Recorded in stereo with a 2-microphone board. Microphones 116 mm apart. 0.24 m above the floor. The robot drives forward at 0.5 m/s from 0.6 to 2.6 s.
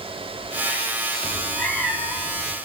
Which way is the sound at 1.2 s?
5° left (ahead or behind).